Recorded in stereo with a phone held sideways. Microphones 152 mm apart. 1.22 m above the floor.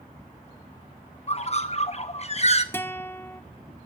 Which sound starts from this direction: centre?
A guitar, at 2.7 s.